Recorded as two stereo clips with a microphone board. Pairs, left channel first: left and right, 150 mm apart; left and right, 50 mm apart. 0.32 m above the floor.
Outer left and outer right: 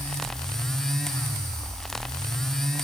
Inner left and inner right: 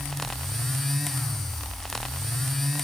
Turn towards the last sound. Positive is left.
No sound to turn to.